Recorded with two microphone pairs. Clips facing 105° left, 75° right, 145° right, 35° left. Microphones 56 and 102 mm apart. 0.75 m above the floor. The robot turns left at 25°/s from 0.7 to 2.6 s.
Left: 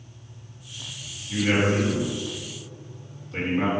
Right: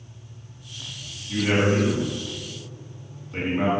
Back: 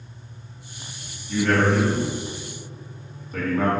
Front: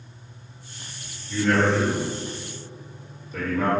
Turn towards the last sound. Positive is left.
turn(degrees=-150)